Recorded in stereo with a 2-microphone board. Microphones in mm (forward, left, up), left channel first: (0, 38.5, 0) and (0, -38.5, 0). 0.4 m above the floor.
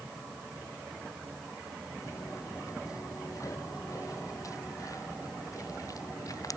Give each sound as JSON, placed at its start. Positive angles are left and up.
{"t": 2.0, "sound": "footsteps", "side_deg": 40}